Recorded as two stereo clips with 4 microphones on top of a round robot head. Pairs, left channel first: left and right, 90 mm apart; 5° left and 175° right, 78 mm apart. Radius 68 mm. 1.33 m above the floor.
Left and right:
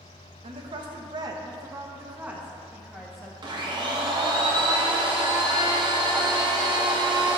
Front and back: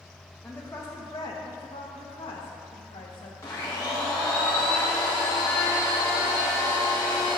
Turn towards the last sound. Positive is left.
turn(degrees=-55)